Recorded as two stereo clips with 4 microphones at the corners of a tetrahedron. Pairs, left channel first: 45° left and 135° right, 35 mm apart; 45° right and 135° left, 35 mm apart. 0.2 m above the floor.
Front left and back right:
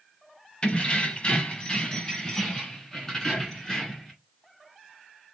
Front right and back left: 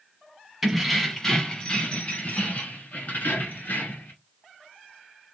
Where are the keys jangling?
60° left, 1.1 m; by 4.1 s 30° right, 2.5 m.